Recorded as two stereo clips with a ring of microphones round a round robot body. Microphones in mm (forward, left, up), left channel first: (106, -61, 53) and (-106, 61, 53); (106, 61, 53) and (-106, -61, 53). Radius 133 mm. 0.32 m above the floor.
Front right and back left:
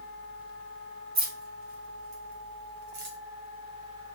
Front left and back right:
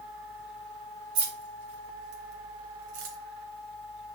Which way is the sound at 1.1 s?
155° right.